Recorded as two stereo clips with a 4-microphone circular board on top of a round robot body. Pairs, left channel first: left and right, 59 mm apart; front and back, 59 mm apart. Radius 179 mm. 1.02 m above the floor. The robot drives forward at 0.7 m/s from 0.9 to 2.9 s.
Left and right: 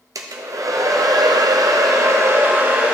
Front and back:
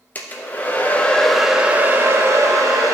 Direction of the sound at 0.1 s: 65° right.